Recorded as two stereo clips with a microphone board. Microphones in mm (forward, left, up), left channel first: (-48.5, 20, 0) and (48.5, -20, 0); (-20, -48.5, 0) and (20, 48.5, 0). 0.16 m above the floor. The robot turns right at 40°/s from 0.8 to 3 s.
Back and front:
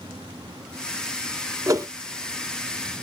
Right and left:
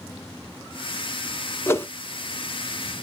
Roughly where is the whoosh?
Ahead right.